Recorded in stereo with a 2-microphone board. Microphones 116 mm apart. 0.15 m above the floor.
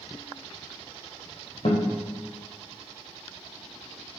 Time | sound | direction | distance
1.6 | a guitar | 60° left (ahead or behind) | 3 m